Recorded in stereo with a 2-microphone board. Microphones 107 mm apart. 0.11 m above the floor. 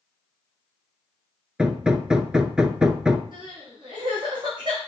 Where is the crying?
45° right (ahead or behind), 3.5 m.